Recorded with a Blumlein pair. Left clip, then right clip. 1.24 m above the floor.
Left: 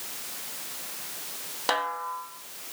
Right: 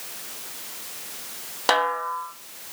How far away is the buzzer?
I don't hear a buzzer.